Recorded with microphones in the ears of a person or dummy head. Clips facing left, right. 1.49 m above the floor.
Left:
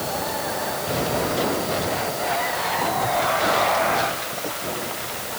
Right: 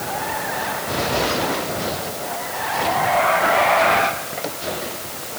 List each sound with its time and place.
Only background noise.